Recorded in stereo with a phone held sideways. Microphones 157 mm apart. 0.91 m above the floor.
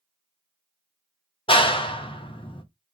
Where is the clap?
35° left (ahead or behind), 0.6 m.